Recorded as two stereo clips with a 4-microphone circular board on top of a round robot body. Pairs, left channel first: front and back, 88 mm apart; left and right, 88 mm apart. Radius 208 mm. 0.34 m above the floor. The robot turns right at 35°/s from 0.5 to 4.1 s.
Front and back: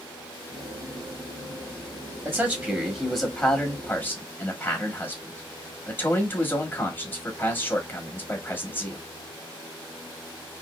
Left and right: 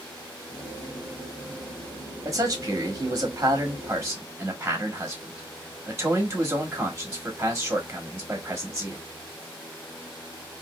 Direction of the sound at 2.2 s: 110° right.